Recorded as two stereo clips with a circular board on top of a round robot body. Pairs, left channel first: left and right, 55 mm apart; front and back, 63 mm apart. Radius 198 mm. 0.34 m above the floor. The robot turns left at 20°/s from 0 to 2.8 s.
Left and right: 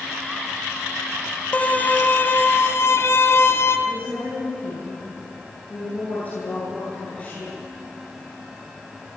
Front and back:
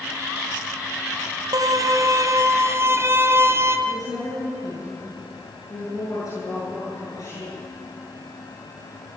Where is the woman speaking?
30° left, 9.5 m.